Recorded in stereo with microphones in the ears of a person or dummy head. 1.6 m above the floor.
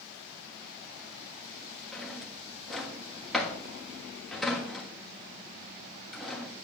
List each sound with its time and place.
1.9 s a drawer: 5° right (ahead or behind), 1.5 m